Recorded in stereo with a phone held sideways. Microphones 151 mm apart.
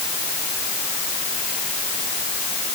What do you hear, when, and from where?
Only background noise.